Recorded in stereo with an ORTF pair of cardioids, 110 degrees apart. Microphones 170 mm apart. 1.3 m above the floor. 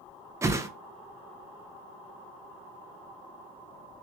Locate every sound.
0.4 s a whoosh: 15° right, 0.6 m